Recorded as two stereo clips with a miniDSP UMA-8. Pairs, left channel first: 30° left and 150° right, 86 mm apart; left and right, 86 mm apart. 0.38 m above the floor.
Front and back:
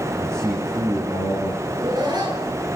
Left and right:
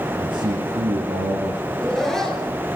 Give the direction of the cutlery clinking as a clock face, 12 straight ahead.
No cutlery clinking in this recording.